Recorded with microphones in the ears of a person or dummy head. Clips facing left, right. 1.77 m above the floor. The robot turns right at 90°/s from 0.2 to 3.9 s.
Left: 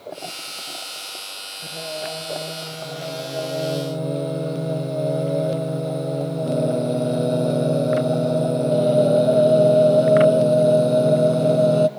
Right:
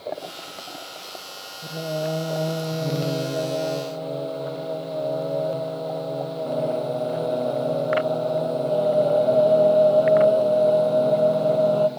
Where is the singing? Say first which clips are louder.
Right 4 dB; 175° right, 0.8 m; by 11.9 s 30° left, 0.8 m.